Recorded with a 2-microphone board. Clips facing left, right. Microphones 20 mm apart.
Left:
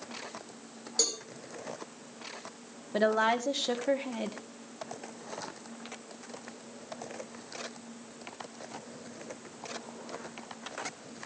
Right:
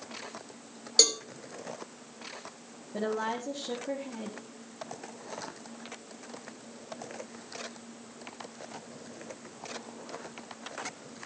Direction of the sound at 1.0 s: 50° right (ahead or behind).